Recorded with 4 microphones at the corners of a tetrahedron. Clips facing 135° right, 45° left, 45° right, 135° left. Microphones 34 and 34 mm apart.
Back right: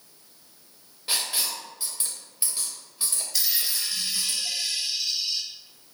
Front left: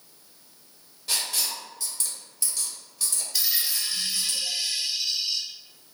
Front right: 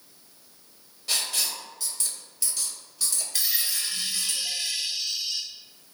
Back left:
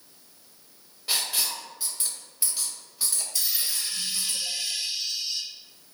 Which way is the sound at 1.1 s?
170° right.